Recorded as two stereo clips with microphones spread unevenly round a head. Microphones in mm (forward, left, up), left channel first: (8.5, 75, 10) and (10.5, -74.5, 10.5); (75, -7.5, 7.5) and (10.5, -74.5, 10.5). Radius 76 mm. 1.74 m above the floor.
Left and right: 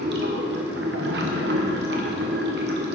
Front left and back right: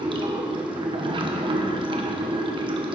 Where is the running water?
105° right, 1.3 m.